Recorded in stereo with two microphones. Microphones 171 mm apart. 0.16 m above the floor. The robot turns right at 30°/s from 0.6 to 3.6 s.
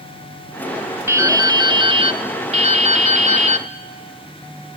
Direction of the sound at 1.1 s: 155° right.